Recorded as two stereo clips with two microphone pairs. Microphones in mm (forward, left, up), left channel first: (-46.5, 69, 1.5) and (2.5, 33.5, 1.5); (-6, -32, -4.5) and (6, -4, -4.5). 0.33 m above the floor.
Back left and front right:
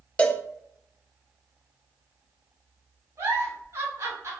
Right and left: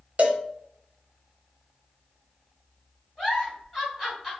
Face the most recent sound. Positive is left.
turn(degrees=-20)